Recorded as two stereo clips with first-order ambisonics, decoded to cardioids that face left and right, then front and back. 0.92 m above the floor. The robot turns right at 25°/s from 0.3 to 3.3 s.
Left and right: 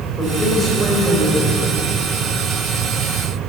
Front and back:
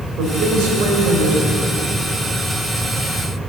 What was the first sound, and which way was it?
A man speaking, 165° left.